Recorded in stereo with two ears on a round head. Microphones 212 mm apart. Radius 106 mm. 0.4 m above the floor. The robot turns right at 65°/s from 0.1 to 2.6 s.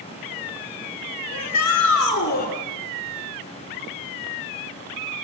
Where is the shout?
65° left, 6 m; by 2.5 s 145° left, 6 m.